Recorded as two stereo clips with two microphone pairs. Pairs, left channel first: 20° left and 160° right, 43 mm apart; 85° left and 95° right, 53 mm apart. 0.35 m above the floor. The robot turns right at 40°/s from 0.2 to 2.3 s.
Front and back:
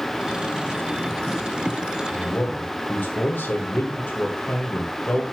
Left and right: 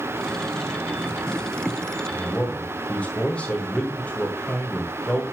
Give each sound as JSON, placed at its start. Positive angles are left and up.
{"t": 2.1, "sound": "a man speaking", "azimuth_deg": 25, "distance_m": 1.9}